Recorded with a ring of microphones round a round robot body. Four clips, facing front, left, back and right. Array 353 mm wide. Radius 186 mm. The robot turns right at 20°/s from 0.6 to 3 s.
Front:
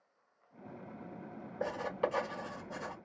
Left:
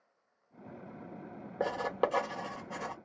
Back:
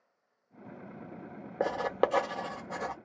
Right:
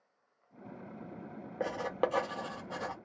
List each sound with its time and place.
1.6 s writing: 170° left, 0.7 m; by 2.9 s 165° right, 0.7 m